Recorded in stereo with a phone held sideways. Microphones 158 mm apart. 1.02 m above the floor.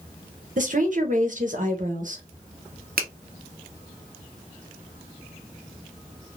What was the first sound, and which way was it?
A woman speaking, 55° right (ahead or behind).